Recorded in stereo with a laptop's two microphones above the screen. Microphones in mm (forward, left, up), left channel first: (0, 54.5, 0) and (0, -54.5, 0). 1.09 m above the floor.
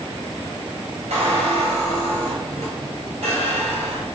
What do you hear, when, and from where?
1.1 s a squeak: 80° right, 3 m